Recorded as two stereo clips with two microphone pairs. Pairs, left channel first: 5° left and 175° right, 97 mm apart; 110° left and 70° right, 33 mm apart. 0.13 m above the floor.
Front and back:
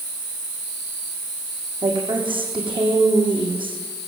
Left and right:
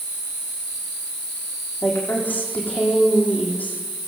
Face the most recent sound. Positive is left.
turn(degrees=150)